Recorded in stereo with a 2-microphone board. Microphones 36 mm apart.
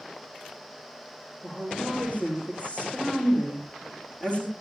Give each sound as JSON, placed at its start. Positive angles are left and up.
{"t": 1.4, "sound": "a woman speaking", "side_deg": 40, "distance_m": 8.0}